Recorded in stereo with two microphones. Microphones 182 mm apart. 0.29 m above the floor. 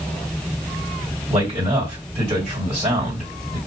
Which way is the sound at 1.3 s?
40° right (ahead or behind).